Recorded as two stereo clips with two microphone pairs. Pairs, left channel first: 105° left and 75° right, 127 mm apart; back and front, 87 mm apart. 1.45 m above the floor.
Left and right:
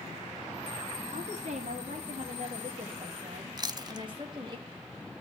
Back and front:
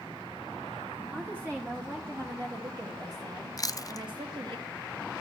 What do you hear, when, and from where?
1.1 s a woman speaking: 75° right, 3 m; by 4.6 s 20° right, 3 m
3.6 s chewing: 135° right, 0.5 m